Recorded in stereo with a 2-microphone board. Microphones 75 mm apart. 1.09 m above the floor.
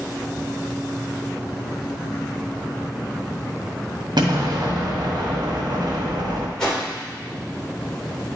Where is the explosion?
75° right (ahead or behind), 1.9 m.